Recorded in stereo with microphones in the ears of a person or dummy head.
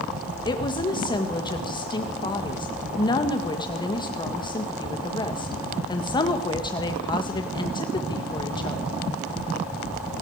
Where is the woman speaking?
25° left (ahead or behind), 2 m.